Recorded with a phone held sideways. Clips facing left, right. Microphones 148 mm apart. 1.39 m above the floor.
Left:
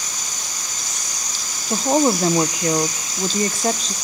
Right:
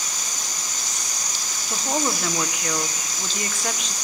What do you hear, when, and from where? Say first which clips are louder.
1.7 s a woman speaking: left 9 dB; 35° left (ahead or behind), 0.8 m